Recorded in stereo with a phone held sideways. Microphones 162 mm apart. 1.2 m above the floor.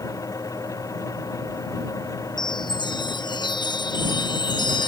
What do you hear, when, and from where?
0.0 s a fan: 20° left (ahead or behind)
2.4 s a chime: 30° left (ahead or behind)